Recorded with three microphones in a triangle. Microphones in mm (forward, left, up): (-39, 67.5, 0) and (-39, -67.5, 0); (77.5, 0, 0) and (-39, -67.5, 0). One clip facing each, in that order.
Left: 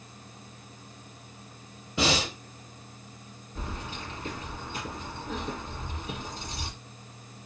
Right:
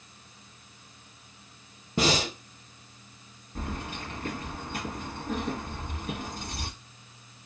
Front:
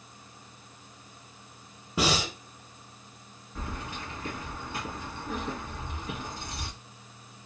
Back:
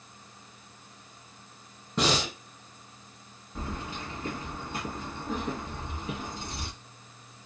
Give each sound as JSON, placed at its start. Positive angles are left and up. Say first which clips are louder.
{"t": 2.0, "sound": "breathing", "louder": "right 1 dB, even", "azimuth_deg": -55, "distance_m": 1.1}
{"t": 3.5, "sound": "keys jangling", "louder": "right 2 dB, back 1 dB", "azimuth_deg": -85, "distance_m": 1.4}